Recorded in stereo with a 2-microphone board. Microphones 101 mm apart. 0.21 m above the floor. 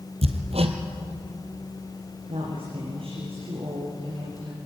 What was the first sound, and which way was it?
Hammering, 80° right.